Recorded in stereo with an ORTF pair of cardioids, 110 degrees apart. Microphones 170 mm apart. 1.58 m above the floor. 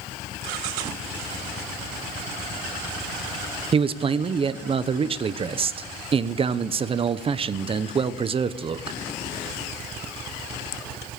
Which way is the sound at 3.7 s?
35° right.